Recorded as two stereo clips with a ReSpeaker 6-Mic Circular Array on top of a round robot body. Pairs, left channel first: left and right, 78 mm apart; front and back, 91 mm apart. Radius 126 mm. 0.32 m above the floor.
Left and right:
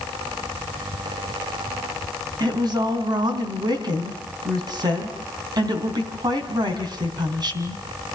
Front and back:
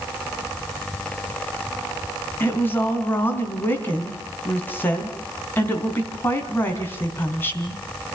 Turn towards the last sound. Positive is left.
turn(degrees=-65)